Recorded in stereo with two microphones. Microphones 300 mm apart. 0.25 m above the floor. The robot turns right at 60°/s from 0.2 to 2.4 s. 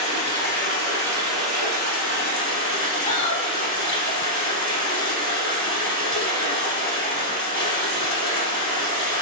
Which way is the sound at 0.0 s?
160° right.